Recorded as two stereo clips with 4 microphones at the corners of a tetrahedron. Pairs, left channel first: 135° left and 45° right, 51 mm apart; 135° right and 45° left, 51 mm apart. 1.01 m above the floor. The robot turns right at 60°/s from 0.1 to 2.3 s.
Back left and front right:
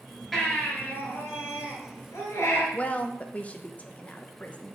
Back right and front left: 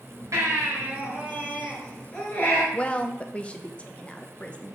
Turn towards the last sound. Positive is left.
turn(degrees=175)